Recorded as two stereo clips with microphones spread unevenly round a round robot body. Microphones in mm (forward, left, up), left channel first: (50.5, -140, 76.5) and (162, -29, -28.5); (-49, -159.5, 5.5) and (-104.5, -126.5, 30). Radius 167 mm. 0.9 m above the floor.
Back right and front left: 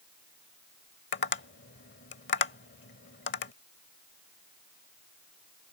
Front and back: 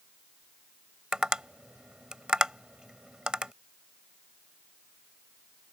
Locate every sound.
1.1 s tapping: 135° right